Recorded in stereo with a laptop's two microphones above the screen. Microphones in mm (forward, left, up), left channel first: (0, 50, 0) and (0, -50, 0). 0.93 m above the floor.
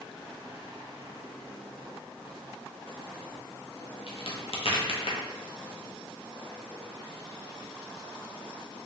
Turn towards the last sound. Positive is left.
turn(degrees=70)  # may be behind; listen again after turning